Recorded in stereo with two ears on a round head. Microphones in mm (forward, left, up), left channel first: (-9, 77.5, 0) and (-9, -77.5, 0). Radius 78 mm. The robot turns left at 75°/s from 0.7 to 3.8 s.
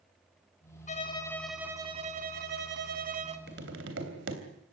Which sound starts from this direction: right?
Tapping, at 3.5 s.